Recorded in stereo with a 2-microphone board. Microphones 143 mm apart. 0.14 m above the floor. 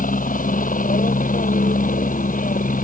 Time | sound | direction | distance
0.0 | a helicopter | 70° left (ahead or behind) | ?